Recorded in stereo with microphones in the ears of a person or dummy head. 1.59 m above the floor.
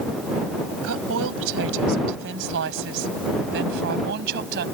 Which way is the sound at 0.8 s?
80° right.